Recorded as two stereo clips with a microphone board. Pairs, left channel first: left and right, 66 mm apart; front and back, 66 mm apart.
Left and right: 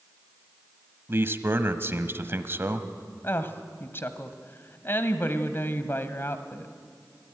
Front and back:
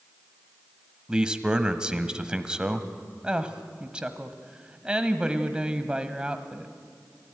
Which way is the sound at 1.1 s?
110° right.